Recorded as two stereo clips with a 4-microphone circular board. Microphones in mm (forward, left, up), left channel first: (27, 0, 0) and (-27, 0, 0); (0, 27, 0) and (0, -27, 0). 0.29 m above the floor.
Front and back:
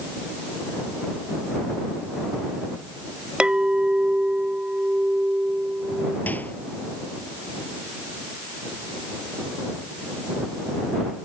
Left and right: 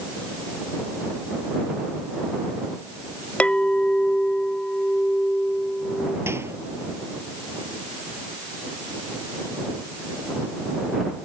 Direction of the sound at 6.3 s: 55° right.